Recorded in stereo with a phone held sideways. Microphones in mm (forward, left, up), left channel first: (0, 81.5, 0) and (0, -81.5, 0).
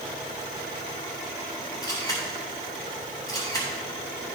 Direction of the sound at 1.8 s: 25° left (ahead or behind).